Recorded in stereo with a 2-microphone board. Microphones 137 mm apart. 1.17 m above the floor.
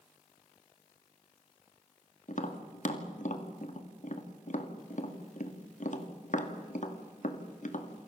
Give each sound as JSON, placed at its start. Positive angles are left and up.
{"t": 2.3, "sound": "tapping", "side_deg": 65, "distance_m": 2.5}